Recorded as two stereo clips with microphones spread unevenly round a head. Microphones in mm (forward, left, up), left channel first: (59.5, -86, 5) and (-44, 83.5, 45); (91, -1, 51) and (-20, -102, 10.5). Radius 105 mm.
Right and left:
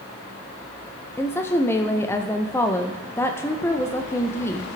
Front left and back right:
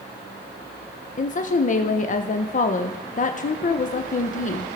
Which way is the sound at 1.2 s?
5° left.